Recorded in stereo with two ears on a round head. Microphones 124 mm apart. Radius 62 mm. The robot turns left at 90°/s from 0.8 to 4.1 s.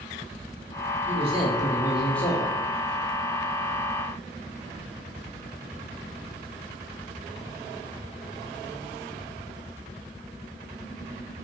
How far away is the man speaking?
About 1.0 m.